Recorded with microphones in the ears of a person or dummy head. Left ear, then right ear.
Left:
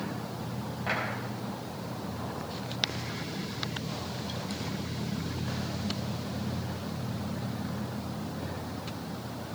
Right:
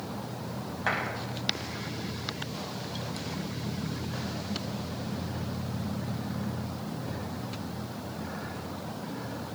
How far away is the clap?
About 5.5 m.